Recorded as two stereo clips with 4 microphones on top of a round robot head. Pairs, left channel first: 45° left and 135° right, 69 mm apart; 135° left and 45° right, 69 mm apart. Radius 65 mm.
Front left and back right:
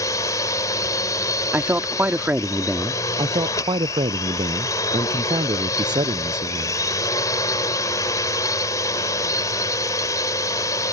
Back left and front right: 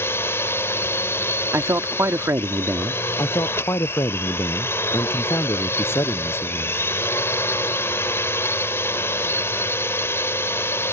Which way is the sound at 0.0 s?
80° left.